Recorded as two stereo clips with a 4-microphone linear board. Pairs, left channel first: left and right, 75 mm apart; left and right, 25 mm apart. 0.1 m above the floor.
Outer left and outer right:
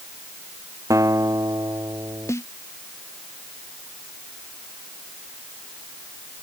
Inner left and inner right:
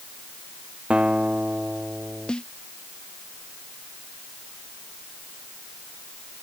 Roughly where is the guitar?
Right.